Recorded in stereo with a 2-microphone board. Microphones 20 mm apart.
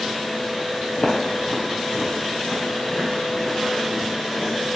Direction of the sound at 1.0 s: 45° left (ahead or behind).